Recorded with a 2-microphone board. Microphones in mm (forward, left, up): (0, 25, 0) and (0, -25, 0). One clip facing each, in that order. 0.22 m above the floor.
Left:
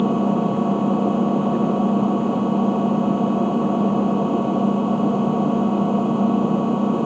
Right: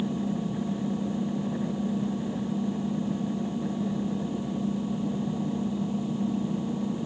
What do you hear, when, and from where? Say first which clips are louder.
0.0 s an engine running: left 11 dB; 65° left (ahead or behind)